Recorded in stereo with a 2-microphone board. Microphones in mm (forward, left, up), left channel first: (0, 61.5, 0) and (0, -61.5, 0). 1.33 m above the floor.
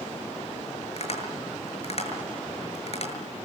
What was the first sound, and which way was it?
Tapping, 55° left (ahead or behind).